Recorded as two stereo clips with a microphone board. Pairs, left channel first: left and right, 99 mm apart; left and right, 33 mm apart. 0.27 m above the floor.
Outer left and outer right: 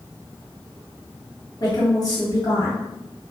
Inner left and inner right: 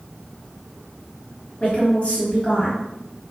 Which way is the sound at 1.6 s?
45° left (ahead or behind).